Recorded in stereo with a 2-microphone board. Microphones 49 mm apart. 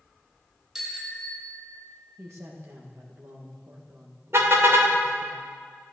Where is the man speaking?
60° right (ahead or behind), 1.8 m.